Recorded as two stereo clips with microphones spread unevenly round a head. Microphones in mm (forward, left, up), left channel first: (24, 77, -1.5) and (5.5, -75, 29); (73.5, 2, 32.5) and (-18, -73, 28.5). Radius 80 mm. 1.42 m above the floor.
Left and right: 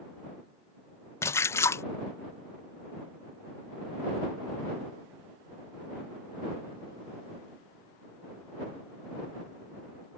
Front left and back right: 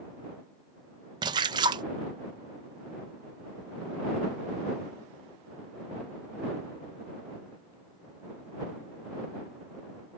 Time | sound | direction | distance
1.2 | a splash | 165° left | ?